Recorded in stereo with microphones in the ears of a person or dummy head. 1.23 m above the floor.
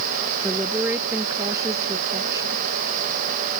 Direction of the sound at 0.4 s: 10° right (ahead or behind).